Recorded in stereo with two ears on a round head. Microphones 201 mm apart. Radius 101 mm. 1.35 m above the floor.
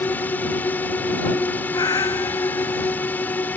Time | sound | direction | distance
0.0 | a drone | 5° left (ahead or behind) | ?
1.7 | a cat meowing | 15° left (ahead or behind) | ?